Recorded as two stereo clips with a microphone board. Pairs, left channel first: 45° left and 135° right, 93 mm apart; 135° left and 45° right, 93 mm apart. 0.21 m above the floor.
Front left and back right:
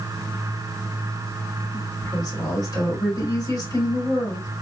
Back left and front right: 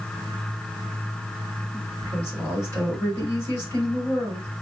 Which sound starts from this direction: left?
A woman speaking, at 1.7 s.